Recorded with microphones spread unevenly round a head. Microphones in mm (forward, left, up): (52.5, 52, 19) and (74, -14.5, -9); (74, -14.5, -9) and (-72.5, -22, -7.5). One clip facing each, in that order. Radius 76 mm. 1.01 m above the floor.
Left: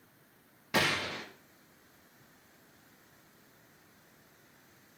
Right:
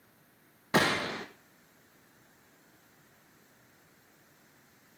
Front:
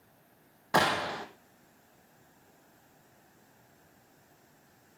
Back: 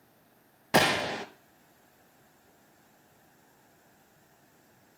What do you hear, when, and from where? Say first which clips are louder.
0.7 s a gunshot: right 3 dB, back 2 dB; 115° right, 0.8 m